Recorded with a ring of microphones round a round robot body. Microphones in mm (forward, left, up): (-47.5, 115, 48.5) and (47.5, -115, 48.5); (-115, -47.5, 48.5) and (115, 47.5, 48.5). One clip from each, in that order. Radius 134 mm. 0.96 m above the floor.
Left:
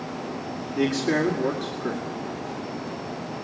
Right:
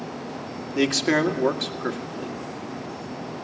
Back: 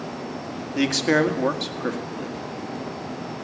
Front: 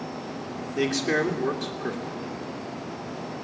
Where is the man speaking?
110° right, 2 m.